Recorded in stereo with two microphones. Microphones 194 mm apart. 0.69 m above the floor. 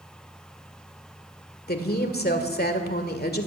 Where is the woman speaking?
55° left (ahead or behind), 1.8 m.